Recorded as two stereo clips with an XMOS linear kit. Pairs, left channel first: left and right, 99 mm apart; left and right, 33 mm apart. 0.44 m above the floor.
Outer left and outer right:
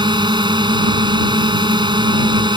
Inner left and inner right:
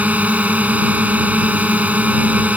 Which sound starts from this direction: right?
A drone, at 0.0 s.